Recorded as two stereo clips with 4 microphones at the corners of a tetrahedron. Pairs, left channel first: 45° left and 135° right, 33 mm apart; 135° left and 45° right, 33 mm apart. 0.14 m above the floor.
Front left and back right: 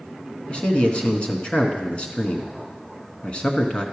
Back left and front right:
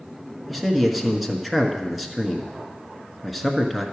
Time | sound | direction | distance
0.5 | a man speaking | 45° left | 1.2 m